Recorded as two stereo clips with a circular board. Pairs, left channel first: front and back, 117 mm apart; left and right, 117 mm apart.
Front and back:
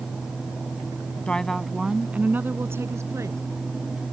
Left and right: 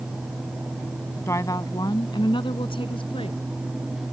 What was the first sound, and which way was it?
A woman speaking, 70° left.